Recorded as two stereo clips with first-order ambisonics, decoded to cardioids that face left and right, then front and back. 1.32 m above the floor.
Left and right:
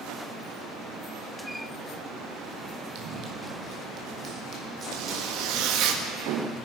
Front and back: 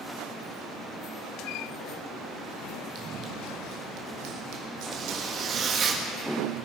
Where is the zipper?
120° right, 1.5 m.